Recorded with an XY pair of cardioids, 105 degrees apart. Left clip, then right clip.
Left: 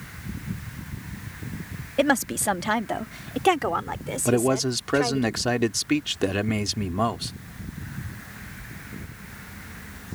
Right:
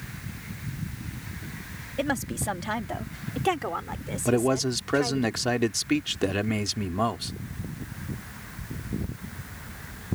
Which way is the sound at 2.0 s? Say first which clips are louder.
Left 7 dB; 50° left.